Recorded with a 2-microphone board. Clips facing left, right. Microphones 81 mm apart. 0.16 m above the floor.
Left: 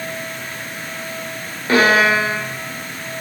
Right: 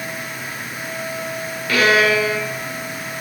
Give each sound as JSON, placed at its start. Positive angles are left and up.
{"t": 1.7, "sound": "a violin", "side_deg": 30, "distance_m": 4.0}